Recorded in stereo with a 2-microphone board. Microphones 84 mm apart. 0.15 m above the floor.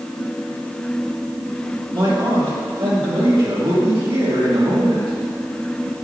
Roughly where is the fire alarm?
No fire alarm in this recording.